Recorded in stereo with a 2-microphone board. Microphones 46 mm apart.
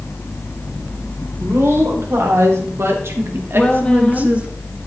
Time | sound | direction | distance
1.4 | a woman speaking | 70° right (ahead or behind) | 3.5 m
3.5 | a woman speaking | 20° left (ahead or behind) | 1.0 m